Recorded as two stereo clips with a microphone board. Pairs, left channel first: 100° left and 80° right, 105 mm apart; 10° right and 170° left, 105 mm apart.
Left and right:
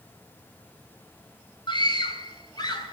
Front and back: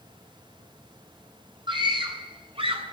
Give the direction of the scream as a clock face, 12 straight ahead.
7 o'clock.